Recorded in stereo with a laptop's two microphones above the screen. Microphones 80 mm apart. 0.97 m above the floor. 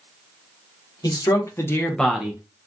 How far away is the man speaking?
About 1.2 m.